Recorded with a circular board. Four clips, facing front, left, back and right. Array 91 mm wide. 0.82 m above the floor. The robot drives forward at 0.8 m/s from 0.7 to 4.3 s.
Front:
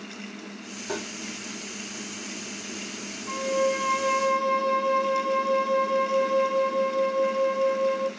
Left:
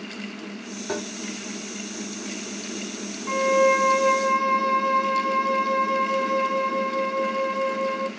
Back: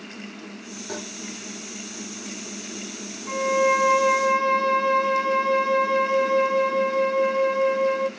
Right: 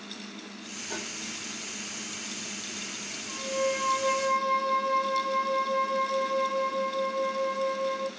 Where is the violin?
100° left, 0.5 m; by 8.1 s 150° left, 1.0 m.